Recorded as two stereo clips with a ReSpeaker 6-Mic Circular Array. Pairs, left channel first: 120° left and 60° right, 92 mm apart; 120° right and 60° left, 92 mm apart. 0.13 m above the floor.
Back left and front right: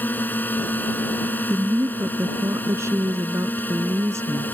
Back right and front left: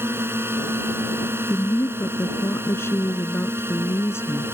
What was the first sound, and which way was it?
A drone, 80° left.